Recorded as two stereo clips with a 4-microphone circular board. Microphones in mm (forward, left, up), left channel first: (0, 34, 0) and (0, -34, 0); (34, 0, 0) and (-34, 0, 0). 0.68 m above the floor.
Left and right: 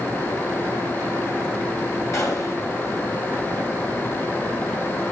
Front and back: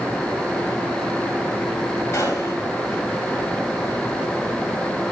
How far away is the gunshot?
About 4.5 m.